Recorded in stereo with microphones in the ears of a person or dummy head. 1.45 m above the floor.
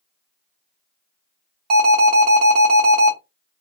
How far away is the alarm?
About 0.9 m.